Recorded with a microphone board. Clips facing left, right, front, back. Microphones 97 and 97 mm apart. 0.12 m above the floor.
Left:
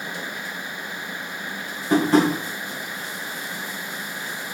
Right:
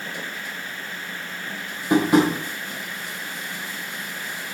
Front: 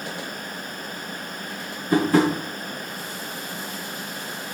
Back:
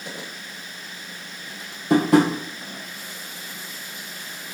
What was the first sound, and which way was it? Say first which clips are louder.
Tapping: even, back 2 dB; 170° right.